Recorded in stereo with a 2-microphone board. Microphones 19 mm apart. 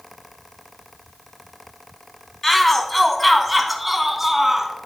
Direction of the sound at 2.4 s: 20° left (ahead or behind).